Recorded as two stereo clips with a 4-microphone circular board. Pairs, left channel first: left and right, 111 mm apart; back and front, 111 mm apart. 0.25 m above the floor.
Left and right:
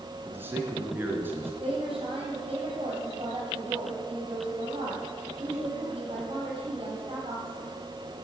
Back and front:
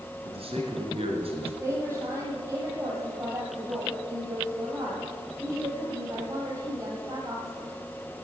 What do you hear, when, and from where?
0.2 s a man speaking: 20° right, 4 m
1.6 s a woman speaking: 55° right, 7 m